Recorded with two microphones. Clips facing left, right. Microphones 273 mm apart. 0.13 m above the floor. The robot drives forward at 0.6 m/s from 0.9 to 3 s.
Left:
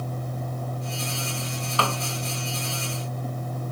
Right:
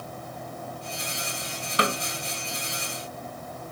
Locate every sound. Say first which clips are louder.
1.8 s a snare drum: right 2 dB; 20° right (ahead or behind)